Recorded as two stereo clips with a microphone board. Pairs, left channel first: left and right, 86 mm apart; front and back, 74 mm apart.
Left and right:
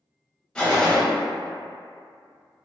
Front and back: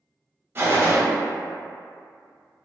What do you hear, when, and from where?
0.6 s a gunshot: 160° left, 0.6 m